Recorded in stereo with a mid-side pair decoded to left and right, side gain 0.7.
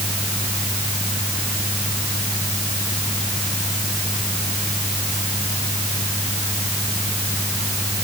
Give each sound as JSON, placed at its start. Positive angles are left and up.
{"t": 0.0, "sound": "a fan", "azimuth_deg": 5}